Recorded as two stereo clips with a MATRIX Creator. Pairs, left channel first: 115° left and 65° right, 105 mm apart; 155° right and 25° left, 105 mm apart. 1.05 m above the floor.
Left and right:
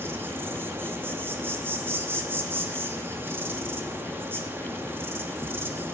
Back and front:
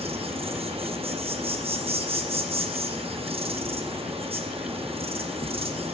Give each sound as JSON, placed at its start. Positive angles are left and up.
{"t": 0.0, "sound": "an insect", "azimuth_deg": 0, "distance_m": 0.9}